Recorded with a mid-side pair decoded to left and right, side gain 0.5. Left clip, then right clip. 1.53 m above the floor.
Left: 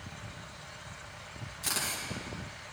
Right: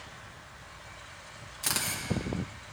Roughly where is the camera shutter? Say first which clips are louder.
Right 2 dB; ahead right.